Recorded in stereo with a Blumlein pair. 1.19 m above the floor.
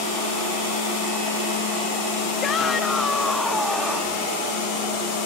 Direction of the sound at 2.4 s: 25° left.